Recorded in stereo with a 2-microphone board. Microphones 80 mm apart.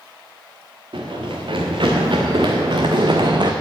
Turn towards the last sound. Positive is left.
turn(degrees=-65)  # may be behind; listen again after turning